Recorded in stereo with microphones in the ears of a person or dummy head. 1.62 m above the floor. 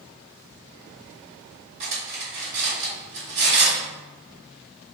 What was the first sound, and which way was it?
Cutlery clinking, 45° right (ahead or behind).